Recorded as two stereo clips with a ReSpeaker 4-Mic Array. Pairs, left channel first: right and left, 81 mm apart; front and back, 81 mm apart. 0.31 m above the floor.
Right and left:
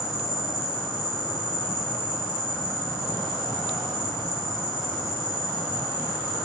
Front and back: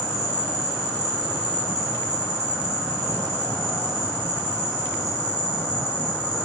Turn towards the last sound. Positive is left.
turn(degrees=-5)